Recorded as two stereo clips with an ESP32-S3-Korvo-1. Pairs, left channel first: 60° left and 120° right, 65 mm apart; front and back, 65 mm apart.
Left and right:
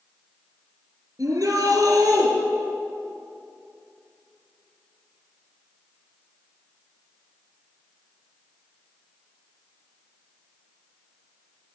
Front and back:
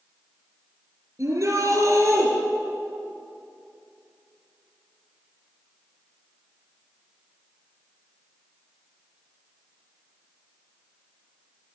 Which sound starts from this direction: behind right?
A shout, at 1.2 s.